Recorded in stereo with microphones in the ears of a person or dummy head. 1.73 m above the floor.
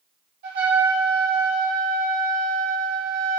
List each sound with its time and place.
0.4 s a trumpet: 55° right (ahead or behind), 2.5 m